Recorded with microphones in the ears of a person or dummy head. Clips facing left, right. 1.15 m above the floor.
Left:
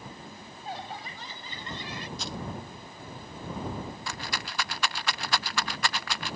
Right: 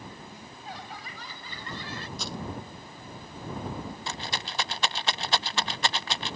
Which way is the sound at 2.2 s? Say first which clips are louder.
Right 2 dB; 85° right.